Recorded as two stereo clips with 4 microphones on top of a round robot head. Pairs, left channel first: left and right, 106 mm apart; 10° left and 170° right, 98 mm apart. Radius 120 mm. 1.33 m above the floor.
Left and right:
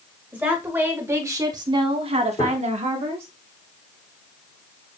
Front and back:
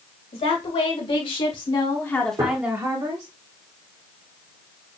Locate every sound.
0.3 s a woman speaking: 15° right, 2 m; by 3.3 s 125° right, 1.1 m
2.4 s a gunshot: 140° left, 3 m